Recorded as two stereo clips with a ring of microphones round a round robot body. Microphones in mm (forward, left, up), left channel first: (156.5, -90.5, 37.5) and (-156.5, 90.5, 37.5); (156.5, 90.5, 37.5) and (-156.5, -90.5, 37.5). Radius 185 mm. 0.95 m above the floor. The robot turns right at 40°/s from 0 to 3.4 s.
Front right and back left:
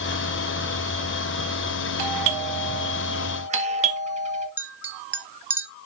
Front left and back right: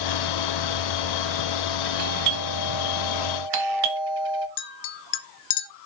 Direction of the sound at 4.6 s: 65° left.